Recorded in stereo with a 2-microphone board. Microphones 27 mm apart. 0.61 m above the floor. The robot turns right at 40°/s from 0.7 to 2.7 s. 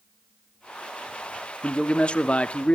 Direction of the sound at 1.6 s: 45° left.